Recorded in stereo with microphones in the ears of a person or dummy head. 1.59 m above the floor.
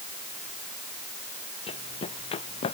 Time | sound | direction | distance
1.7 | running footsteps | 35° left (ahead or behind) | ?